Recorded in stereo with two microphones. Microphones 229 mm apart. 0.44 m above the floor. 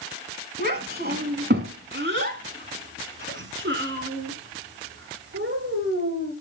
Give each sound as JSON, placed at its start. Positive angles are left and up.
{"t": 0.6, "sound": "a child speaking", "side_deg": -45, "distance_m": 3.0}